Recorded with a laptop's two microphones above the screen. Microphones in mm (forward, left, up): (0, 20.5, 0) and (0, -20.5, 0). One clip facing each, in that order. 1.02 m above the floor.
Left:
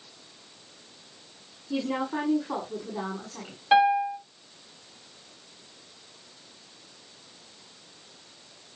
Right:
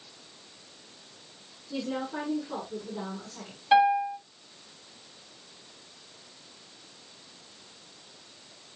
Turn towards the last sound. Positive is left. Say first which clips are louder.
# left 1 dB
turn(degrees=20)  # may be behind; listen again after turning